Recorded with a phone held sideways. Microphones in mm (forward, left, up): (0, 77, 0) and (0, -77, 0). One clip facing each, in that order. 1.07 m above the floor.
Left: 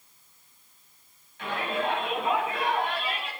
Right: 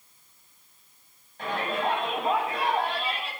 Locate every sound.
1.4 s a shout: 40° right (ahead or behind), 8.5 m; by 3.3 s 35° right (ahead or behind), 8 m